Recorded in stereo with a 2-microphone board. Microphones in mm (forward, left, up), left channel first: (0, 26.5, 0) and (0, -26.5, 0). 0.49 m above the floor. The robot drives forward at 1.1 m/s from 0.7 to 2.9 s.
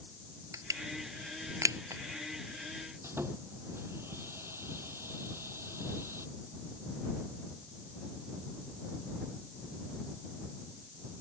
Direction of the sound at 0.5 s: 80° right.